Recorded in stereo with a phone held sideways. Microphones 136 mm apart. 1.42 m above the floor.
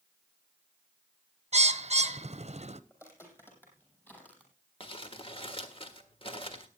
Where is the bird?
55° right (ahead or behind), 0.6 m.